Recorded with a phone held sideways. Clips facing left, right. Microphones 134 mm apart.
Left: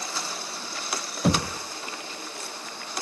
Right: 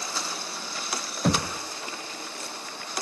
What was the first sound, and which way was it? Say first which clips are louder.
Knocking: left 1 dB; 5° left (ahead or behind).